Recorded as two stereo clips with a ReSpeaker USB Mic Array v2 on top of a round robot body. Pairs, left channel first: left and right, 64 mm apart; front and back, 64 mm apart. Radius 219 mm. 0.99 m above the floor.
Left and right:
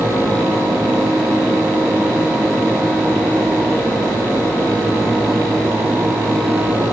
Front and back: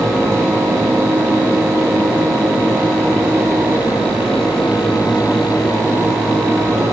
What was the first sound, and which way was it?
Only background noise.